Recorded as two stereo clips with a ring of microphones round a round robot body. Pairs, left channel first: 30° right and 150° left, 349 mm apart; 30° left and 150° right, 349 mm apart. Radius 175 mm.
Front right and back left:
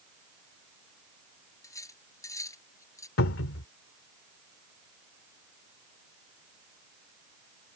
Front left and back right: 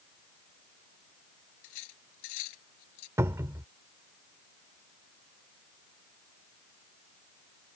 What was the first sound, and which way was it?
Cutlery clinking, 50° left.